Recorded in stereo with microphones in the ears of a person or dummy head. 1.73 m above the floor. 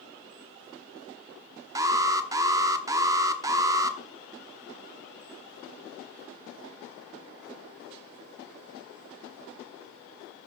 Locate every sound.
1.8 s an alarm: 20° right (ahead or behind), 0.9 m